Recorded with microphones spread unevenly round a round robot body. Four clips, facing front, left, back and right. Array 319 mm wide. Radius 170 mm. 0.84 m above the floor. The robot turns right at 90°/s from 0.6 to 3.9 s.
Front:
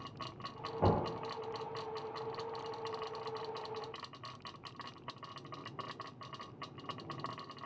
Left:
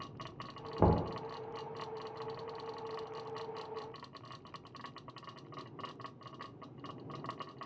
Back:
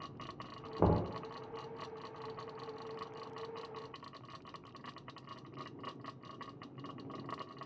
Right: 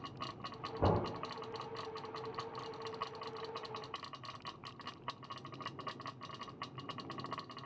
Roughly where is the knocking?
Left.